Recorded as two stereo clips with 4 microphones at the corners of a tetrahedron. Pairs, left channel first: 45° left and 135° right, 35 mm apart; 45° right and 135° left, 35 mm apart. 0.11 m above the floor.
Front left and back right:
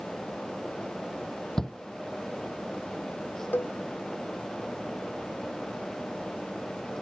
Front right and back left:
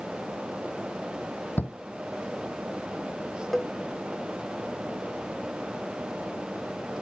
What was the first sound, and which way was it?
A shout, 25° right.